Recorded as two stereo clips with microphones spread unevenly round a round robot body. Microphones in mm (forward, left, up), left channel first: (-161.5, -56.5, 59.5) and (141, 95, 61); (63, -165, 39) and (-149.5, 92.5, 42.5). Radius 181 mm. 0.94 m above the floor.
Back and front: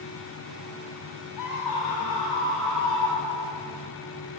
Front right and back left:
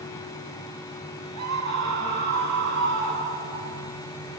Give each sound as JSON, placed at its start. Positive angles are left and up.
{"t": 1.4, "sound": "a scream", "azimuth_deg": 170, "distance_m": 8.5}